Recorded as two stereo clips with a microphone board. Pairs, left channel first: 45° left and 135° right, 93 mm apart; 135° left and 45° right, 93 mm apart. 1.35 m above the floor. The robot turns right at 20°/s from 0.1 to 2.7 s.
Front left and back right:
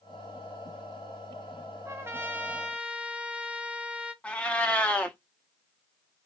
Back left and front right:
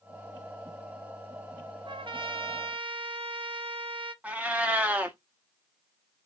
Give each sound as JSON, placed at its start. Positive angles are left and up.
{"t": 1.9, "sound": "a trumpet", "azimuth_deg": -75, "distance_m": 0.7}
{"t": 4.2, "sound": "a cat meowing", "azimuth_deg": -5, "distance_m": 0.8}